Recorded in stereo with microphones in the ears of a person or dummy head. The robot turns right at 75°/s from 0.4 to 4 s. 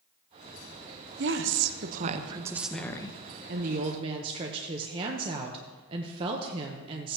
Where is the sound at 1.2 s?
115° right, 0.9 m; by 3.2 s 35° left, 0.9 m.